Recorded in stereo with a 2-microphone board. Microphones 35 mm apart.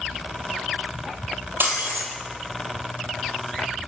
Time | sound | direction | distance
1.6 | breaking glass | 75° right (ahead or behind) | 1.5 m